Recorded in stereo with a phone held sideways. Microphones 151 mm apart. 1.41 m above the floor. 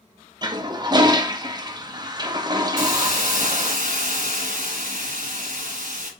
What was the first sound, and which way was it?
A toilet flushing, 30° right (ahead or behind).